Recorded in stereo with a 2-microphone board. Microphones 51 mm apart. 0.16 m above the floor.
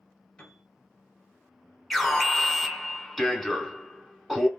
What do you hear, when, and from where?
0.4 s a piano: 20° left (ahead or behind), 1.2 m
1.9 s an alarm: 5° left (ahead or behind), 0.8 m